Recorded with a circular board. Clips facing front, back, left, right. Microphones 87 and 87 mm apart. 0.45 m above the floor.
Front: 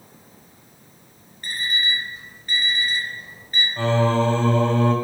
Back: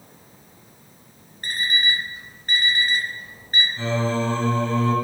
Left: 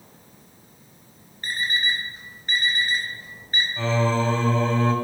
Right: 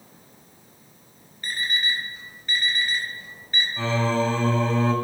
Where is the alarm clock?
140° left, 5 m.